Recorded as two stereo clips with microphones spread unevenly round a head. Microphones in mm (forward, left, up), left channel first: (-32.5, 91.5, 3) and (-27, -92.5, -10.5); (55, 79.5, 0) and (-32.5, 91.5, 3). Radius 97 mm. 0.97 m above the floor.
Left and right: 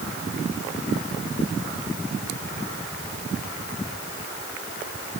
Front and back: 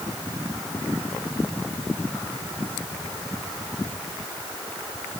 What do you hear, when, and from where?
Only background noise.